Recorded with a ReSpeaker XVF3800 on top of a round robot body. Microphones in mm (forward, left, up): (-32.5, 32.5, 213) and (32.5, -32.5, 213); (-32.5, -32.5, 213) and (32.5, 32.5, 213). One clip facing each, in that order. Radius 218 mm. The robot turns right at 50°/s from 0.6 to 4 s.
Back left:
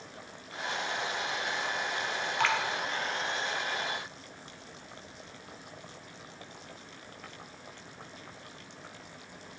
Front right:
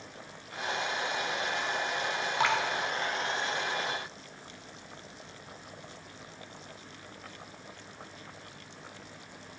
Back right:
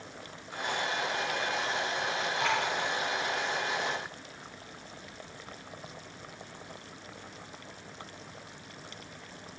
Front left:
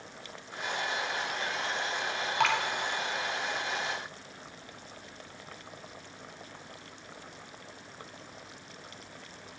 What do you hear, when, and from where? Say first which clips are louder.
2.4 s dripping: front right 1 dB, front left 4 dB; 25° left, 0.9 m; by 2.6 s 35° left, 0.9 m